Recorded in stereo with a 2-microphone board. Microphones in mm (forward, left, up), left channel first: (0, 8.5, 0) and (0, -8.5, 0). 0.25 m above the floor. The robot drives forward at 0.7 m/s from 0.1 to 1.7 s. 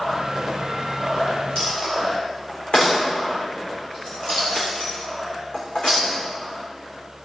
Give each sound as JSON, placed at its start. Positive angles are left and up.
{"t": 1.6, "sound": "a dropped coin", "side_deg": 65, "distance_m": 4.0}